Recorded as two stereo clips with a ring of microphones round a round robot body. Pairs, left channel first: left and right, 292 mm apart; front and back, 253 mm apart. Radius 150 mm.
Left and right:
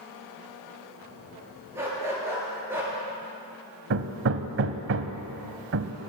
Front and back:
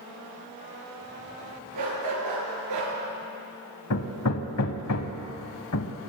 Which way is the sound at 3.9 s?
40° right.